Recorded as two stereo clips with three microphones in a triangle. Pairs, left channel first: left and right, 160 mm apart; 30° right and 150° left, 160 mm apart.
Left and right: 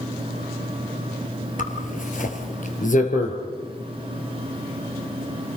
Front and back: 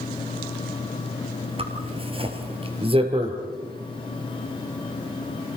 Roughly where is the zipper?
Left.